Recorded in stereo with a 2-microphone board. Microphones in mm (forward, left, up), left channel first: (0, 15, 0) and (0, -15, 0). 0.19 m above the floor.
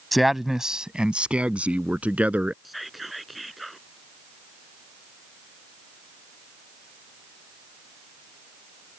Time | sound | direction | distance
0.1 | a man speaking | centre (ahead or behind) | ?
2.6 | whispering | 5° right (ahead or behind) | ?